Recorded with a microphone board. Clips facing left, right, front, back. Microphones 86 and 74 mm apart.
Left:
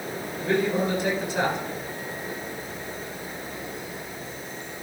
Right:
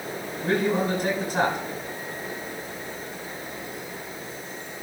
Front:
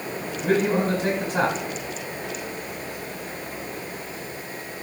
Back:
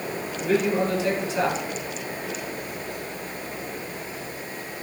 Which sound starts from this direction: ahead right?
A man speaking, at 0.4 s.